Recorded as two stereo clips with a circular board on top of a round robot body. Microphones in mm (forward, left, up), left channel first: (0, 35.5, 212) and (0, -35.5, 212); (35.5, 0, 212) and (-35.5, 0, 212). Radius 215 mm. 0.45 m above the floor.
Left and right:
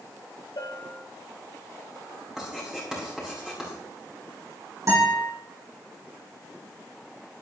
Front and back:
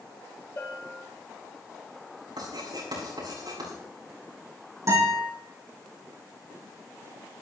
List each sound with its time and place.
0.6 s a bell: 60° left, 4 m
2.4 s writing: 175° right, 7 m
4.9 s a guitar: 135° right, 9 m